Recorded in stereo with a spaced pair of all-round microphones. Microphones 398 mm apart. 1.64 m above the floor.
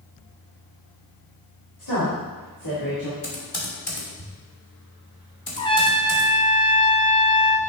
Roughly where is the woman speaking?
Left.